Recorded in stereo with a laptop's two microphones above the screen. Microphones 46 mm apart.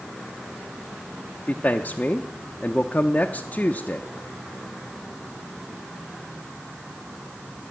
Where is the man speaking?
35° left (ahead or behind), 0.5 m.